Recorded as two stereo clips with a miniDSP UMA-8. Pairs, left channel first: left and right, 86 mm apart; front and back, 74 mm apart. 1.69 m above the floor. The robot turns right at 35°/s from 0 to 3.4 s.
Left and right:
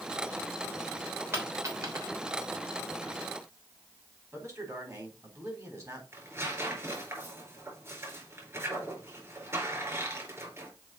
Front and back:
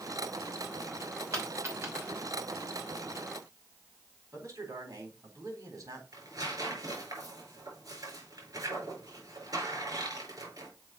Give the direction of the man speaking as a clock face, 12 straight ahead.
5 o'clock.